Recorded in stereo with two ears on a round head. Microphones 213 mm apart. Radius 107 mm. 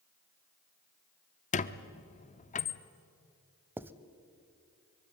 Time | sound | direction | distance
1.5 | a squeak | 30° left (ahead or behind) | 0.8 m
3.8 | writing | 10° right (ahead or behind) | 0.7 m